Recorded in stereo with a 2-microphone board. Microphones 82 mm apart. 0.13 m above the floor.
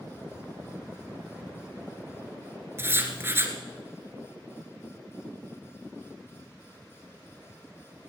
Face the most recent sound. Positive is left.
turn(degrees=-30)  # may be behind; listen again after turning